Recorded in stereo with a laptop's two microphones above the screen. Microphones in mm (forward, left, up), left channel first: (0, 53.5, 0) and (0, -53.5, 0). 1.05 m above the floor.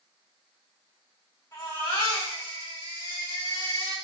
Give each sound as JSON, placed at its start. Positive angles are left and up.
{"t": 1.5, "sound": "a baby crying", "side_deg": 35, "distance_m": 2.5}